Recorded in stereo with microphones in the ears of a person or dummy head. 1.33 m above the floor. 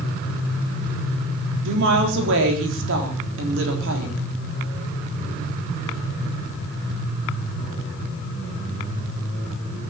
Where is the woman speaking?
65° right (ahead or behind), 3.5 m.